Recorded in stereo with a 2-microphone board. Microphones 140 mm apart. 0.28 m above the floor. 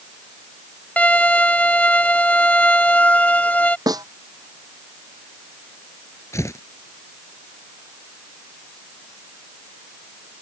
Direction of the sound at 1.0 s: 10° left (ahead or behind).